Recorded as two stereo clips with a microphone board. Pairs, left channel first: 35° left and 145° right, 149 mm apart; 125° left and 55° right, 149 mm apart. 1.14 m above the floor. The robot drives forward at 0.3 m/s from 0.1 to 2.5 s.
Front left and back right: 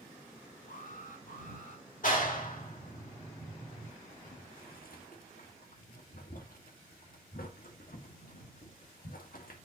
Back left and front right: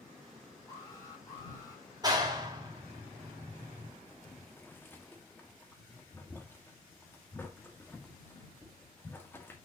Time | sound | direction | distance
0.7 | an alarm | 55° left | 6 m
2.0 | a clap | 10° left | 2 m
4.1 | boiling | 50° left | 1.6 m